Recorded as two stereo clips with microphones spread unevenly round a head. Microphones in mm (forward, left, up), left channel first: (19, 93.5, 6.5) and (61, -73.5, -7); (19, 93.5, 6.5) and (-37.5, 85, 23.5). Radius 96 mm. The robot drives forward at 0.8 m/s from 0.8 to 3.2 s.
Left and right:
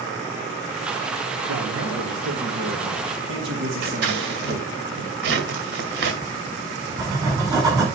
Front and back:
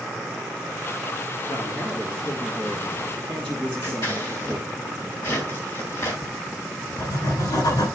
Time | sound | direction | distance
1.5 | a man speaking | 55° right | 2.5 m
3.8 | scissors | 60° right | 2 m
6.2 | writing | 5° right | 5 m